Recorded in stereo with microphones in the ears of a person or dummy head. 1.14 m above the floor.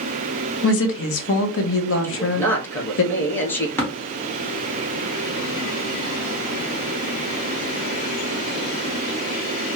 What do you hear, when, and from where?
0.6 s a woman speaking: 60° left (ahead or behind), 0.7 m
2.0 s a man speaking: 10° left (ahead or behind), 0.7 m
3.8 s tapping: 5° left (ahead or behind), 1.0 m